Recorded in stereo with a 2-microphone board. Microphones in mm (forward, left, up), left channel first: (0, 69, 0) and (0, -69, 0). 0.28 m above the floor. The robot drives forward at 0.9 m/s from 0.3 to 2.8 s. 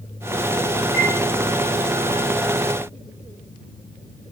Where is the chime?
50° left (ahead or behind), 1.8 m; by 1.1 s 45° left (ahead or behind), 1.9 m.